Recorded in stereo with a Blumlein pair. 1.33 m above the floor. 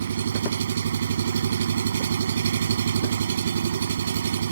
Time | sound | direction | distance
0.0 | an engine running | 65° right | ?